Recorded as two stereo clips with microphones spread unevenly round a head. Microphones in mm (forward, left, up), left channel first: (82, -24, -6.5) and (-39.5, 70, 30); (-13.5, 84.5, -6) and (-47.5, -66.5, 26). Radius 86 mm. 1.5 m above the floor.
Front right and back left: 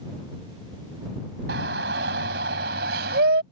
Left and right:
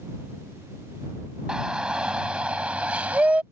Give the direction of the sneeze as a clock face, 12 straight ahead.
No sneeze in this recording.